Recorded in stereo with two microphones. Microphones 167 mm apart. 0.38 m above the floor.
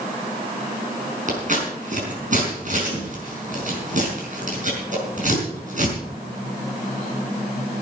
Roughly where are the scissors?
Right.